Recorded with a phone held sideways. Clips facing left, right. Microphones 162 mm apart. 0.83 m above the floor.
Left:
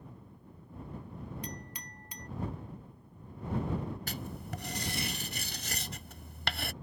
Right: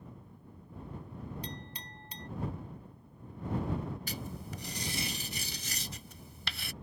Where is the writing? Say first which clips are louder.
Left 1 dB; 70° left (ahead or behind).